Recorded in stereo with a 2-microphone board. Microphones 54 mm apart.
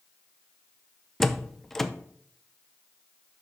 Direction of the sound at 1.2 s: 5° left (ahead or behind).